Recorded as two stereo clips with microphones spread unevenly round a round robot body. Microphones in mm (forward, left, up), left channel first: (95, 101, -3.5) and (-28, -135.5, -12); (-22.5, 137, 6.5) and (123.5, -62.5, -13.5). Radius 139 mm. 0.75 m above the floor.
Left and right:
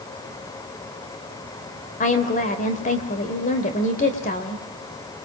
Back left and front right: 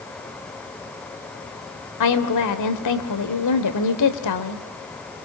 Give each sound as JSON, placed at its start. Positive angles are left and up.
{"t": 2.0, "sound": "a woman speaking", "azimuth_deg": 125, "distance_m": 3.0}